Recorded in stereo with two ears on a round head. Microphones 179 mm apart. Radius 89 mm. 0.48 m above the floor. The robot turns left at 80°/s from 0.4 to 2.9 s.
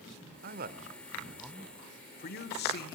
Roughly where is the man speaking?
Right.